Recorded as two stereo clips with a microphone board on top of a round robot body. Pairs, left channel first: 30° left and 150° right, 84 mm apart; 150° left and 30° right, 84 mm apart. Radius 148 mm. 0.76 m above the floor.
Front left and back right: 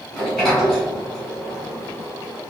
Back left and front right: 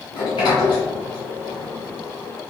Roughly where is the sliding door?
Behind left.